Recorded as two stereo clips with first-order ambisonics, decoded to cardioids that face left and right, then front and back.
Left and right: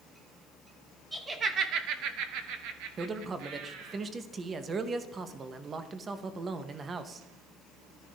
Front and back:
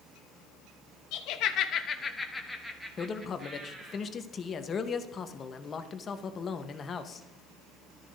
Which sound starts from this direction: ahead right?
A man speaking, at 3.0 s.